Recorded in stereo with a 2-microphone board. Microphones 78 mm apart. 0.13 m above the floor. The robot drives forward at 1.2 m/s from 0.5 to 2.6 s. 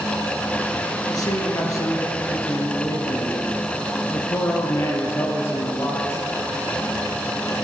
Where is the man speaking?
50° left (ahead or behind), 2.5 m; by 6.2 s 35° left (ahead or behind), 3.5 m.